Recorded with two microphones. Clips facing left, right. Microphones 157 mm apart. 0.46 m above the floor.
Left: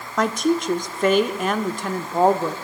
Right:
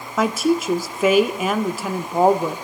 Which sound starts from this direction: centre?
A woman speaking, at 0.2 s.